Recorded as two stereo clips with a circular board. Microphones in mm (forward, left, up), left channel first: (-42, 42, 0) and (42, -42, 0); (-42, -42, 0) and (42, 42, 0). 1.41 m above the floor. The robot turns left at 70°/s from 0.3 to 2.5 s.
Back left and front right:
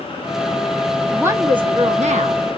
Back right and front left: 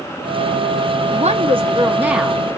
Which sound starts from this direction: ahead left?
A woman speaking, at 1.1 s.